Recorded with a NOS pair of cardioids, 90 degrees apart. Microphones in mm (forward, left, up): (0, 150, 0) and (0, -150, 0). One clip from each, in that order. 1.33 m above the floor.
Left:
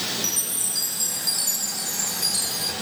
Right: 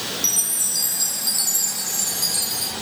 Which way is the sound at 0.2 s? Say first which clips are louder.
Right 4 dB; 25° right.